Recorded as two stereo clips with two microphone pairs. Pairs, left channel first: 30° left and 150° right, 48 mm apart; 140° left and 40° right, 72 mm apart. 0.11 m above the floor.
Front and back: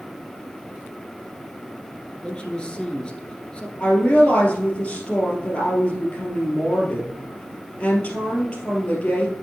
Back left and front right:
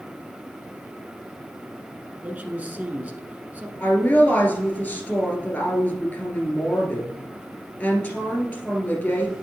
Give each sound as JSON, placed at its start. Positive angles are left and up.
{"t": 2.2, "sound": "a man speaking", "azimuth_deg": 0, "distance_m": 1.2}
{"t": 3.8, "sound": "a woman speaking", "azimuth_deg": 75, "distance_m": 2.5}